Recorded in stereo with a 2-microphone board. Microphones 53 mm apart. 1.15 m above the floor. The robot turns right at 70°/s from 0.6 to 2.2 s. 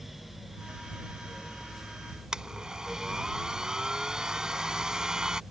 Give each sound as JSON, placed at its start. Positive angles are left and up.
{"t": 2.3, "sound": "a blender", "side_deg": -15}